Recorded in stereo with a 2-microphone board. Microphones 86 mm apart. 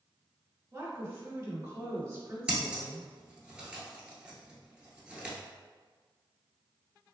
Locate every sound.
0.7 s a woman speaking: 30° right (ahead or behind), 1.2 m
2.5 s scissors: 10° right (ahead or behind), 0.9 m